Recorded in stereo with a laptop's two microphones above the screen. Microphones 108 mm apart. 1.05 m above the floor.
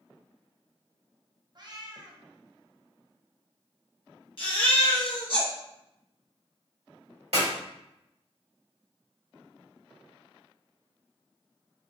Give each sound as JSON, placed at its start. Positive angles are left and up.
{"t": 1.6, "sound": "a cat meowing", "side_deg": -40, "distance_m": 0.6}
{"t": 4.4, "sound": "a baby crying", "side_deg": 50, "distance_m": 1.1}
{"t": 7.3, "sound": "a clap", "side_deg": -70, "distance_m": 1.8}